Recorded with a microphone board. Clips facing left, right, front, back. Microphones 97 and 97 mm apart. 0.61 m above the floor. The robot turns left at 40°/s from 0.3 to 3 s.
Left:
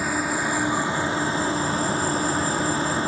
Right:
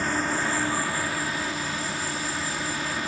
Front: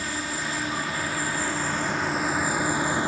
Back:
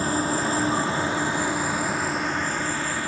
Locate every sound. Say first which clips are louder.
0.0 s an insect: left 2 dB, back 7 dB; 165° left; by 3.1 s 55° left